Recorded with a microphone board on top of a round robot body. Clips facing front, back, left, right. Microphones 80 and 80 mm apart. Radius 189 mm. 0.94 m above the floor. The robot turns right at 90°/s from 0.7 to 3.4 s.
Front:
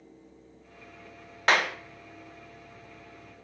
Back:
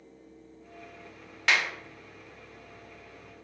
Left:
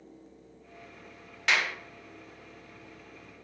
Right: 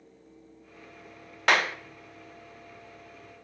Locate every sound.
1.5 s a clap: 50° right, 0.6 m; by 1.8 s 25° right, 0.6 m